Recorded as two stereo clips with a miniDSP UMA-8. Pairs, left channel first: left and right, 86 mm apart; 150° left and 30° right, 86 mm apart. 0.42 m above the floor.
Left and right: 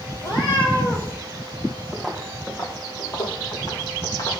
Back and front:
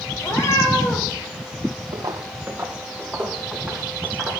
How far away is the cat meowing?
About 5.5 m.